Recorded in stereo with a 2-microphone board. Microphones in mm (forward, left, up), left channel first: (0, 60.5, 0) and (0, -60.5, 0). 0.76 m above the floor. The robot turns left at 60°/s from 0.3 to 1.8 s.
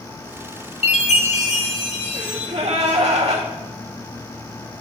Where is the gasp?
65° right (ahead or behind), 1.7 m.